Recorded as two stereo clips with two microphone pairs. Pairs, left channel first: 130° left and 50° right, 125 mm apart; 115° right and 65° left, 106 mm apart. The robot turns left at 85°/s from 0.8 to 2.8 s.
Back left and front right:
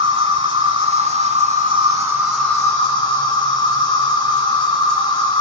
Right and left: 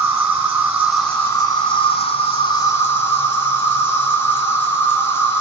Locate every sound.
0.0 s an insect: 5° right, 2.5 m; by 5.4 s 175° right, 2.5 m